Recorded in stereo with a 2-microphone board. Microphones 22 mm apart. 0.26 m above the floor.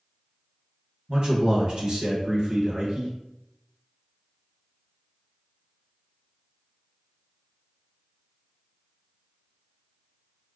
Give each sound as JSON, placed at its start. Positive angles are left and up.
{"t": 1.1, "sound": "a man speaking", "side_deg": -50, "distance_m": 1.3}